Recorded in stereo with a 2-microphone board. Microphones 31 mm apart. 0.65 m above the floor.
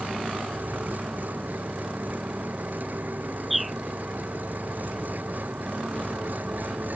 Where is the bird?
Centre (ahead or behind).